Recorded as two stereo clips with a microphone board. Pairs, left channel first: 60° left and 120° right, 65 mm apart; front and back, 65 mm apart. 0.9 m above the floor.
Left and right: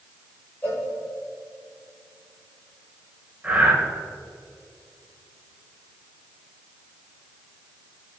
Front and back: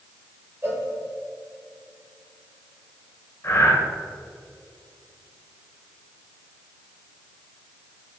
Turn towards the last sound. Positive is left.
turn(degrees=-50)